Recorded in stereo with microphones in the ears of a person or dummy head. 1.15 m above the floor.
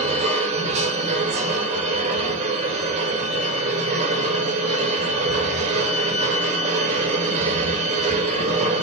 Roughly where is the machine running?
Right.